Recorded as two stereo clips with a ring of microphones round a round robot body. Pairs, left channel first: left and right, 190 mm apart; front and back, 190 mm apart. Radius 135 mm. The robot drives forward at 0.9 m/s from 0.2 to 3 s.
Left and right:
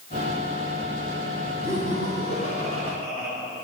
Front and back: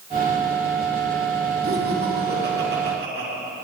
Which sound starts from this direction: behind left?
Laughter, at 1.6 s.